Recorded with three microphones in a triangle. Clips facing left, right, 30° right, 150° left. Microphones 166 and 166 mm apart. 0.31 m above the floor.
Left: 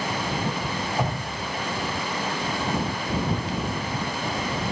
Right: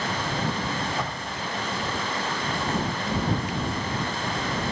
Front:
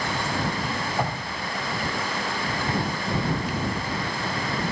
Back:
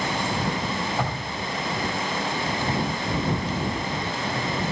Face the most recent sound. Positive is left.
turn(degrees=45)